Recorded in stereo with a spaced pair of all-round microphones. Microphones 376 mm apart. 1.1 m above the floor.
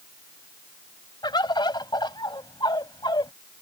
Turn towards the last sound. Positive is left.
turn(degrees=10)  # may be behind; listen again after turning